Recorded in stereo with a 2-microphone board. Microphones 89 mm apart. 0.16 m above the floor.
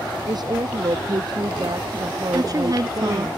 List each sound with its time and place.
0.3 s a woman speaking: 50° right (ahead or behind)
2.3 s a woman speaking: 45° right (ahead or behind)